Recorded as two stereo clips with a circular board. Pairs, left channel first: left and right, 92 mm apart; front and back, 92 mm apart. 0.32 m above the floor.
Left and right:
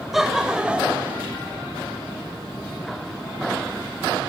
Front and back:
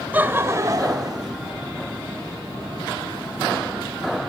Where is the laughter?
175° right, 0.8 m; by 1.3 s 160° right, 1.3 m.